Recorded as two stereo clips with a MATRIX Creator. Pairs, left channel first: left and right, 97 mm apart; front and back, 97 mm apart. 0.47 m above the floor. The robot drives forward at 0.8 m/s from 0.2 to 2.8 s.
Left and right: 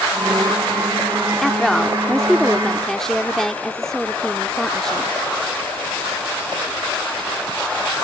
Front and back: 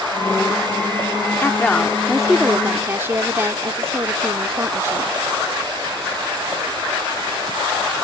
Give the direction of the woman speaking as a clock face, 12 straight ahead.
12 o'clock.